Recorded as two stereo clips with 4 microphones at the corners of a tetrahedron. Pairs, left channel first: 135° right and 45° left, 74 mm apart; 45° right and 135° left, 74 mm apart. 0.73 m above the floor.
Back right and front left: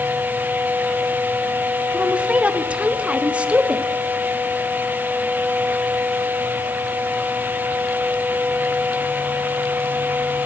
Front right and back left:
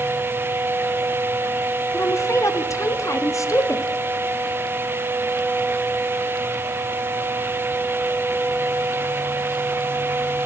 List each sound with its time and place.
1.9 s a woman speaking: 25° right, 0.9 m